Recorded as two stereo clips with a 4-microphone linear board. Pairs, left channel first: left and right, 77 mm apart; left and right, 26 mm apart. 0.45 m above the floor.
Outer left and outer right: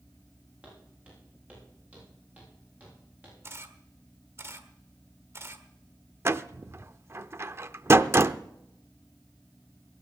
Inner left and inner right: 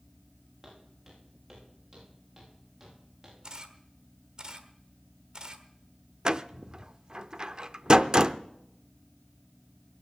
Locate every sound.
0.6 s footsteps: 15° right (ahead or behind), 9.5 m; by 3.3 s 20° right (ahead or behind), 12.5 m
3.4 s a camera shutter: 35° right (ahead or behind), 1.3 m
6.2 s a door slam: 35° right (ahead or behind), 0.5 m